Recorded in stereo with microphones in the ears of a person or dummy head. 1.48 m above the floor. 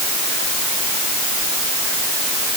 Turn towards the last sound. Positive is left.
No sound to turn to.